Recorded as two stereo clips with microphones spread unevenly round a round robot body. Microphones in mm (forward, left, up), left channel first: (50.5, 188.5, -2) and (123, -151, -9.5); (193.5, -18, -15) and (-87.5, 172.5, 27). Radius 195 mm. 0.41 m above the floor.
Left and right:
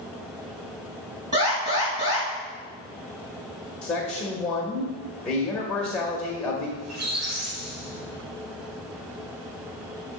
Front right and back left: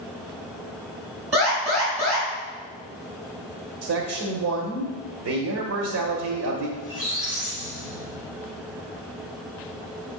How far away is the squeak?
About 3.5 m.